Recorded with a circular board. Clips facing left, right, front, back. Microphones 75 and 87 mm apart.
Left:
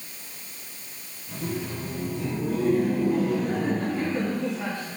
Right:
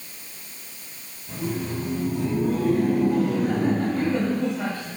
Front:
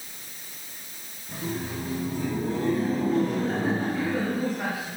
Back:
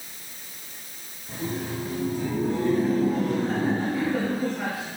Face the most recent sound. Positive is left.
turn(degrees=-85)